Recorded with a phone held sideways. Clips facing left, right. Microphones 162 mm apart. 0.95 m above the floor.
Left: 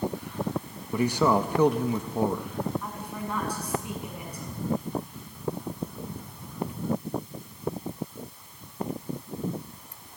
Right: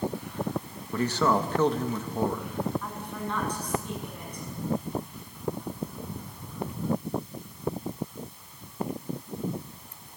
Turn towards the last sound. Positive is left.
turn(degrees=10)  # may be behind; listen again after turning